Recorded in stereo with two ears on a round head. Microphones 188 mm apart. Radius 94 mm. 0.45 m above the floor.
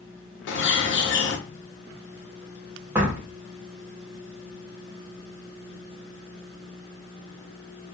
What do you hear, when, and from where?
0.5 s a bird: 60° left (ahead or behind), 0.6 m
3.0 s a door slam: 10° right (ahead or behind), 0.6 m